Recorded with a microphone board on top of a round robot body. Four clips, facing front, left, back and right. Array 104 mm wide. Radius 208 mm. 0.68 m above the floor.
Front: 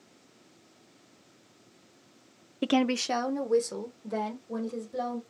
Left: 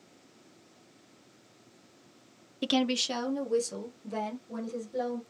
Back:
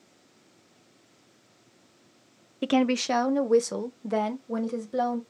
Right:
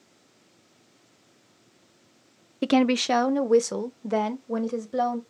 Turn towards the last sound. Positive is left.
turn(degrees=-125)